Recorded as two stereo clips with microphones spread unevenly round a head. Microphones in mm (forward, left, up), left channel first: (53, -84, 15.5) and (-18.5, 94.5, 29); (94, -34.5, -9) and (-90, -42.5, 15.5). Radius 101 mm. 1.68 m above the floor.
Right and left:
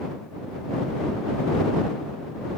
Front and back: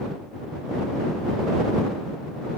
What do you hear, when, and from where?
Only background noise.